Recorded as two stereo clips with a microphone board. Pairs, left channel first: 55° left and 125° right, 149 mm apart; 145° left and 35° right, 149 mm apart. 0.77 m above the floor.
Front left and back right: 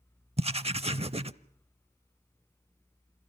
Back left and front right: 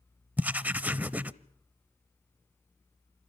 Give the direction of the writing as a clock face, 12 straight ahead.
4 o'clock.